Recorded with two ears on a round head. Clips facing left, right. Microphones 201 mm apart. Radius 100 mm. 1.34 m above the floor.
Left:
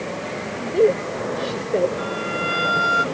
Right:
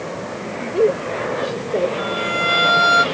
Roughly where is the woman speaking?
Centre.